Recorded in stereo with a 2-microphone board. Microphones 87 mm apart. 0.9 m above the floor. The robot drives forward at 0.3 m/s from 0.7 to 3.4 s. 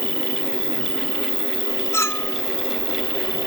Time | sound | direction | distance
0.0 | an insect | 60° right (ahead or behind) | ?
1.9 | a clink | 30° left (ahead or behind) | ?